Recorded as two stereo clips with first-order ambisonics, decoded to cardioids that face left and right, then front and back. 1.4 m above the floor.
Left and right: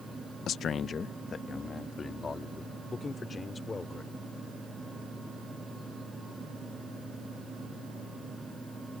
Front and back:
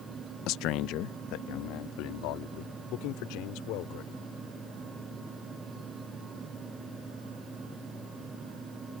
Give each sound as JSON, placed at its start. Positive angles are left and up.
{"t": 0.5, "sound": "a man speaking", "azimuth_deg": 35}